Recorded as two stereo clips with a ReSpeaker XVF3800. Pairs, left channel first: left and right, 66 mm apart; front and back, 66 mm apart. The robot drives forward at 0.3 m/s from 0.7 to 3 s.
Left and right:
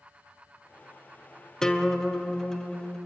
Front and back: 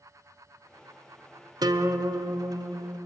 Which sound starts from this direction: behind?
A guitar, at 1.6 s.